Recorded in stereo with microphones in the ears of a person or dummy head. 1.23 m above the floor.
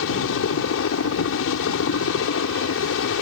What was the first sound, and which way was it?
A helicopter, 70° left (ahead or behind).